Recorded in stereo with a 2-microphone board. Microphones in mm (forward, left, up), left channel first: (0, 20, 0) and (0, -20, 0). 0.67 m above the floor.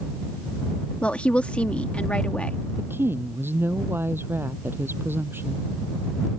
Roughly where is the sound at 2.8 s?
Right.